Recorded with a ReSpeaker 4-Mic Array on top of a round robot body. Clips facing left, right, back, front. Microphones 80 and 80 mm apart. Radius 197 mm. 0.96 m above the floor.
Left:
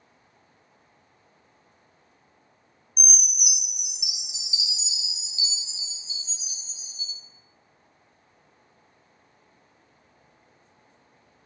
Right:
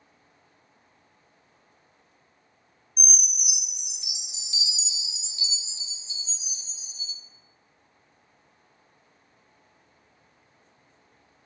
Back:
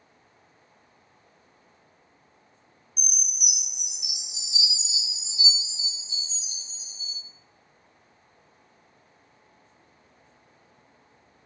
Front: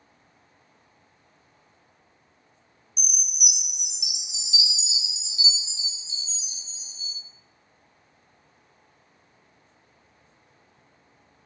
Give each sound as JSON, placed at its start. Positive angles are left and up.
{"t": 3.0, "sound": "a chime", "azimuth_deg": 10, "distance_m": 0.5}